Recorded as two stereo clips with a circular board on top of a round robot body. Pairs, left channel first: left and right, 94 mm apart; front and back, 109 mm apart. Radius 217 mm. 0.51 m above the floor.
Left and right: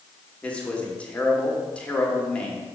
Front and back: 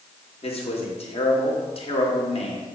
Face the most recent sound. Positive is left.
turn(degrees=15)